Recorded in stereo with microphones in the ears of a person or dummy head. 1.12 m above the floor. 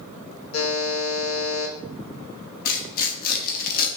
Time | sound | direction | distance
0.5 | a buzzer | 75° left (ahead or behind) | 1.4 m
2.6 | tearing paper | 45° left (ahead or behind) | 1.0 m